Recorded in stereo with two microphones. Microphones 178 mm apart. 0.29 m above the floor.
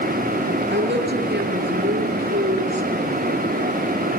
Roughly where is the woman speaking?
Right.